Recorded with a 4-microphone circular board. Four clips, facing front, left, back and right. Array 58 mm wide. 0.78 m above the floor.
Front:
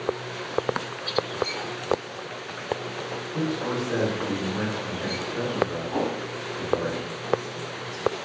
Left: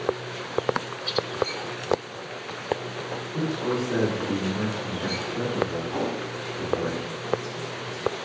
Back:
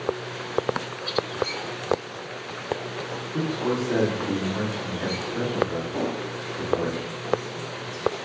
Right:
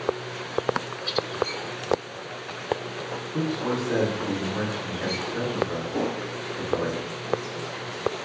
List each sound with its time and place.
3.3 s a man speaking: 130° right, 1.5 m
5.9 s a whoosh: 25° left, 2 m